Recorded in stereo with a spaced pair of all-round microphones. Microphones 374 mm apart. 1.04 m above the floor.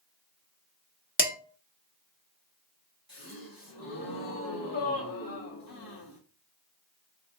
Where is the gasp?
60° left (ahead or behind), 1.8 m.